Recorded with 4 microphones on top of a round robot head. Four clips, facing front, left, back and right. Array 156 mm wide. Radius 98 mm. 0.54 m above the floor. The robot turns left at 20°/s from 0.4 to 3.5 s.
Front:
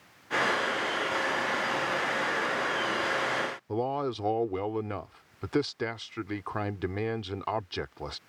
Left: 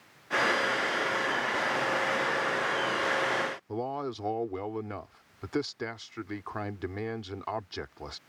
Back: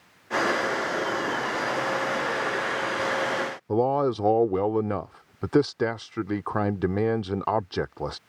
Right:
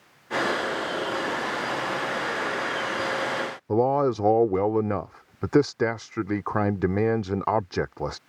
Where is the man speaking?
125° right.